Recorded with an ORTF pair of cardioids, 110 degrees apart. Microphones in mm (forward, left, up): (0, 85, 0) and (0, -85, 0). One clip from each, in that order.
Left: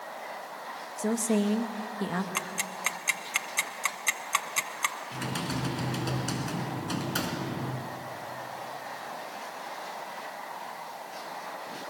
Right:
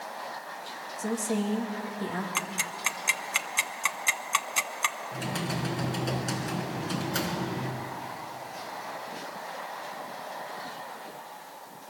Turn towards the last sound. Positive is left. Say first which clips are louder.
# right 1 dB
turn(degrees=15)